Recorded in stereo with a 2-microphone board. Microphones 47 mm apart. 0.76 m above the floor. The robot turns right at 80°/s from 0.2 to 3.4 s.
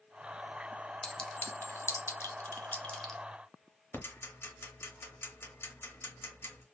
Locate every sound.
1.0 s a clink: 5° left (ahead or behind), 0.6 m; by 3.2 s centre (ahead or behind), 0.6 m
3.9 s ticking: 50° left (ahead or behind), 0.8 m